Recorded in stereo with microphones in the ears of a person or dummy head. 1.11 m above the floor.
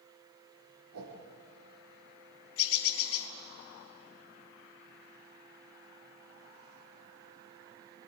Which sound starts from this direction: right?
A whoosh, at 0.9 s.